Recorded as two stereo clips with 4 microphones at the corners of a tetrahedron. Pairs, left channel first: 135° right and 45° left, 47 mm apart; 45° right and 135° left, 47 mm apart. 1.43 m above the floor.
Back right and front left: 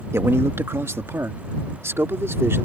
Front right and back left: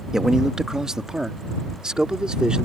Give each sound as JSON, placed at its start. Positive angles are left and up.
{"t": 0.1, "sound": "a man speaking", "azimuth_deg": 55}